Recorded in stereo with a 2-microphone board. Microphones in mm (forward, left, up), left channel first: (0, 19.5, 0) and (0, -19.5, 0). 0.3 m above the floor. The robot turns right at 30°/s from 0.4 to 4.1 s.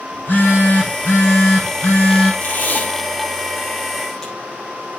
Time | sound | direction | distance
0.1 | a phone buzzing | 55° left | 7 m
2.4 | tape being pulled | 65° left (ahead or behind) | 6.5 m